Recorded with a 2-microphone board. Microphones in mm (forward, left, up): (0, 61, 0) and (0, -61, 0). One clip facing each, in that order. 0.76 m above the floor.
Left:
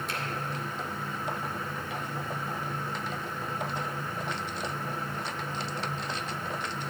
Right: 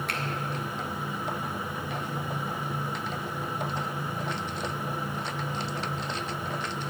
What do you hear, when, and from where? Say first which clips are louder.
0.1 s a finger snap: right 2 dB; 60° right (ahead or behind), 1.7 m